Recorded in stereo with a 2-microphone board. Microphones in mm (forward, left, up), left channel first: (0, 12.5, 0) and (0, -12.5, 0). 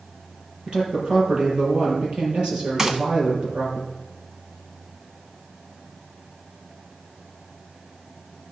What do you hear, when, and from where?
0.7 s a man speaking: 40° right (ahead or behind), 5 m
2.8 s a gunshot: 25° right (ahead or behind), 1.0 m